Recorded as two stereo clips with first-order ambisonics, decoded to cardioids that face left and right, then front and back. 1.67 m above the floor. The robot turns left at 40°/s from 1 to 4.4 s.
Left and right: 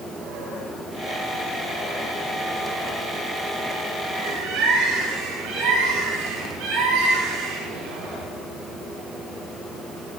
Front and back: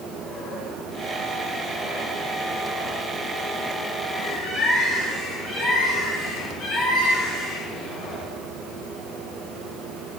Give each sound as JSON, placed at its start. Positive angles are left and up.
{"t": 4.2, "sound": "a bird", "azimuth_deg": -45, "distance_m": 5.0}